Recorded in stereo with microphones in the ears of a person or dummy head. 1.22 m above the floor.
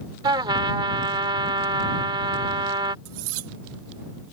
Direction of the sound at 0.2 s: 20° right (ahead or behind).